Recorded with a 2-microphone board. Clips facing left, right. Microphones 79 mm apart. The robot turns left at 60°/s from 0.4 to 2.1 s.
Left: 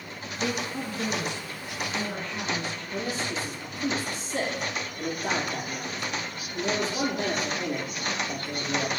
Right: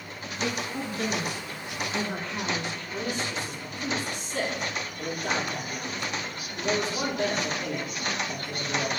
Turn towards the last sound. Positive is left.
turn(degrees=35)  # may be behind; listen again after turning